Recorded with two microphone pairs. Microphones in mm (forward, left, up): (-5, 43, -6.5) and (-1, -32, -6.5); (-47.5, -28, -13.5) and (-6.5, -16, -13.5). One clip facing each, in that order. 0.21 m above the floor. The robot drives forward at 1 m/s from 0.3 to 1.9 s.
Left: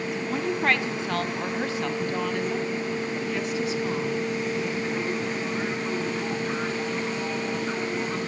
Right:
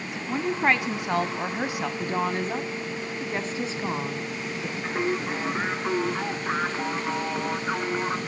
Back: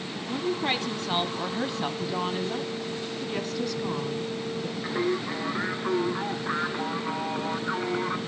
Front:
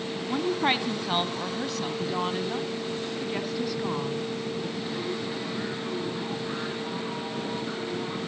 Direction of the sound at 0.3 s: 20° right.